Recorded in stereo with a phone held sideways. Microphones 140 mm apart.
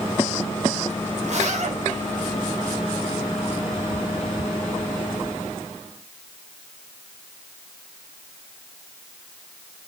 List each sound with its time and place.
1.2 s a zipper: 50° right (ahead or behind), 1.5 m